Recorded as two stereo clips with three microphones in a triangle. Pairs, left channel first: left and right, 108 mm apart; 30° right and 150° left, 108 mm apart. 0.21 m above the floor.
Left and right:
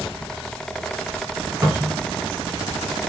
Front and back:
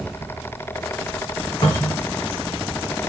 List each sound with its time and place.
1.6 s a cupboard door: 40° right, 1.9 m